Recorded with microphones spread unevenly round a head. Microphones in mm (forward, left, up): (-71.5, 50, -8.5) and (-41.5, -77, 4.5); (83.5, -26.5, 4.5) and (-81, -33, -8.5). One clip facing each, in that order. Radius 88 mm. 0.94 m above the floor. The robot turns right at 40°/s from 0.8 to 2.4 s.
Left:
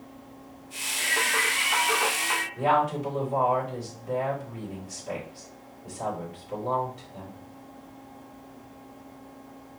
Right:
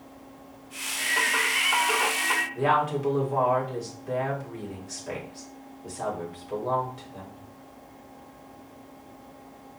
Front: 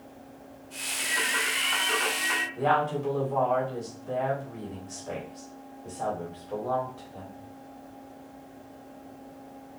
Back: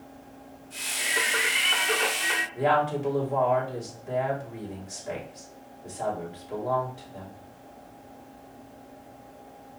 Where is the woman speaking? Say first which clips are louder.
Left 1 dB, back 2 dB; 105° right, 2.5 m.